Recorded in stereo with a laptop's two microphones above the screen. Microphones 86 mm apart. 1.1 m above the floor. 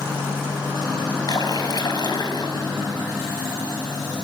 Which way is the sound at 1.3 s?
50° left (ahead or behind).